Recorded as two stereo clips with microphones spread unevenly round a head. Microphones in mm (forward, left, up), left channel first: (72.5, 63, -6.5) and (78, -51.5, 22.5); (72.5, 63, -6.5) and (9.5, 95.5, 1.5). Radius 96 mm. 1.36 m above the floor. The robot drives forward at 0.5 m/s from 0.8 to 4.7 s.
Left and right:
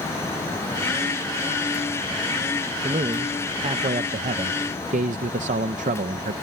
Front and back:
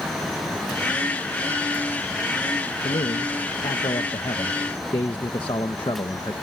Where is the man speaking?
45° right; by 6.3 s 80° right.